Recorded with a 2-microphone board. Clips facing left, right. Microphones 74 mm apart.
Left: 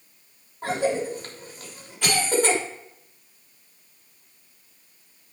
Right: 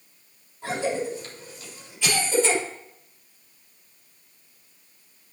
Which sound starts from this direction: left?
A cough, at 0.6 s.